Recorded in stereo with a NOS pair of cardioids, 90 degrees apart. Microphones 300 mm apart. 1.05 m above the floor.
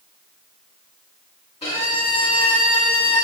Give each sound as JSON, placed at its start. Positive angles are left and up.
{"t": 1.6, "sound": "a violin", "azimuth_deg": 20, "distance_m": 1.4}